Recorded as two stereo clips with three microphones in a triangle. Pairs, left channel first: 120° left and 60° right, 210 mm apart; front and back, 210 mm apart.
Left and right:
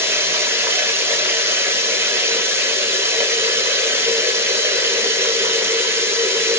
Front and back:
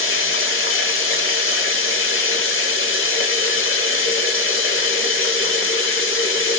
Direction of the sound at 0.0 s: 20° left.